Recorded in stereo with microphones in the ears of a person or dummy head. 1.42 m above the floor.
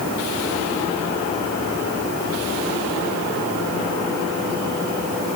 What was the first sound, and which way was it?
Only background noise.